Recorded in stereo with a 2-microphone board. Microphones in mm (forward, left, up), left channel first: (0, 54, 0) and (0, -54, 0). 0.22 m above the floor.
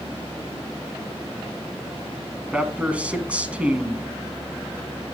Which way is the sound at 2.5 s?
10° right (ahead or behind).